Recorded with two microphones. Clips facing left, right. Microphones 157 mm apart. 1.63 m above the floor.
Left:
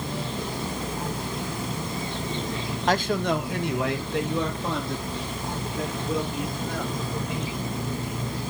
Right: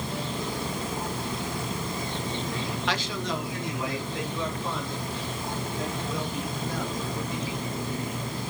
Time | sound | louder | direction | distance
2.9 | a man speaking | left 10 dB | 45° left (ahead or behind) | 0.7 m